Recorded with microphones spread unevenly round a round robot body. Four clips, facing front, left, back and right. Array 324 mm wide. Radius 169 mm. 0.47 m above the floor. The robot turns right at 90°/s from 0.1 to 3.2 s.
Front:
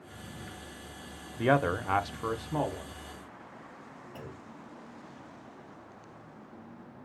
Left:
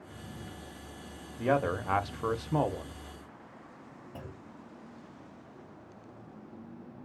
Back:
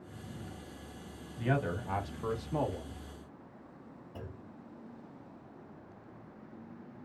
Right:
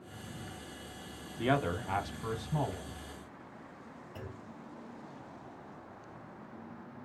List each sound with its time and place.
1.4 s a man speaking: 10° right, 0.9 m; by 3.0 s 135° left, 0.9 m
4.2 s a clunk: 110° left, 1.3 m